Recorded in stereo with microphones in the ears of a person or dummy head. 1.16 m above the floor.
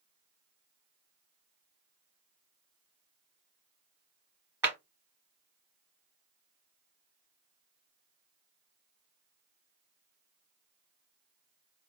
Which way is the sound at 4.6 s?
15° right (ahead or behind).